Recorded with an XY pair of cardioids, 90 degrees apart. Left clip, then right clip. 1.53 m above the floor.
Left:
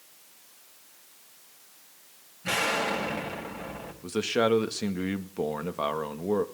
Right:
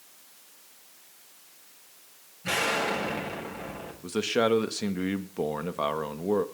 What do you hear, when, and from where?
2.4 s an explosion: 5° left, 8.5 m
4.0 s a man speaking: straight ahead, 2 m